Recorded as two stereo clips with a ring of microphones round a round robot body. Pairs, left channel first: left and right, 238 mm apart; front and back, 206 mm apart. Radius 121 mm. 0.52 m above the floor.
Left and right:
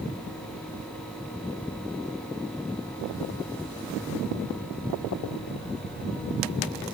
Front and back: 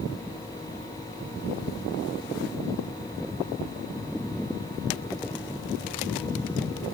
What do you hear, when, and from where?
Only background noise.